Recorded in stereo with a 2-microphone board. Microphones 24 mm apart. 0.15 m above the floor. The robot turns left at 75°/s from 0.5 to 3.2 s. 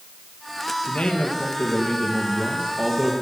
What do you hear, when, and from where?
0.9 s a man speaking: 120° left, 4 m; by 3.1 s 50° right, 4 m